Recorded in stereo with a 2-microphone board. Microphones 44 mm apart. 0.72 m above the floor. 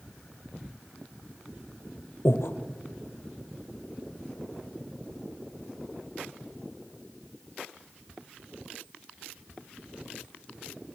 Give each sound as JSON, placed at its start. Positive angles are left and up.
{"t": 2.2, "sound": "breathing", "side_deg": 70, "distance_m": 1.3}